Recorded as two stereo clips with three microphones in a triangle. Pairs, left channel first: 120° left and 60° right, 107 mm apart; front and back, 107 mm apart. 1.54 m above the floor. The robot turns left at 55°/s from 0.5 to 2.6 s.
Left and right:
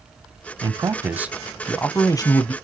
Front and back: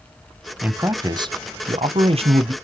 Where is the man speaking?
100° right, 0.6 m; by 2.5 s 150° left, 0.6 m.